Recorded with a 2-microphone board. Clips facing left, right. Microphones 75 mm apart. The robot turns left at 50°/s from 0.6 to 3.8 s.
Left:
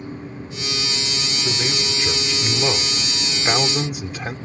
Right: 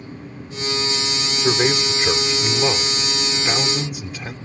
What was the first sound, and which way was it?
A man speaking, 100° right.